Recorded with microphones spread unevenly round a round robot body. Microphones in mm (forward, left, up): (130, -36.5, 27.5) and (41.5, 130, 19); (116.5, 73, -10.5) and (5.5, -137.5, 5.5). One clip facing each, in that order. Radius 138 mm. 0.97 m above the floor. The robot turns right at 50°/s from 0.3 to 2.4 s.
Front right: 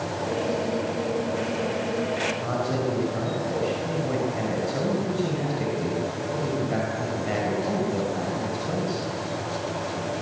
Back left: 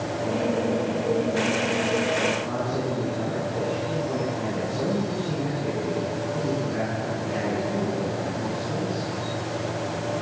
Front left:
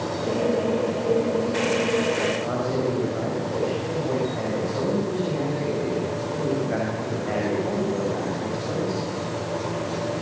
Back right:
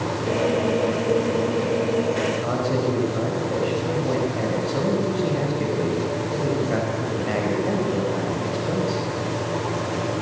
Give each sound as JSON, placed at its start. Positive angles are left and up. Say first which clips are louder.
{"t": 2.4, "sound": "a man speaking", "louder": "front right 1 dB, back right 2 dB", "azimuth_deg": -75, "distance_m": 5.5}